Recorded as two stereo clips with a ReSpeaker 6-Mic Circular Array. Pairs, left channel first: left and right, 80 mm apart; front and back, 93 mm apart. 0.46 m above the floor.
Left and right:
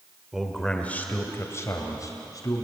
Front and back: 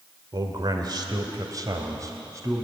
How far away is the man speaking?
About 1.7 m.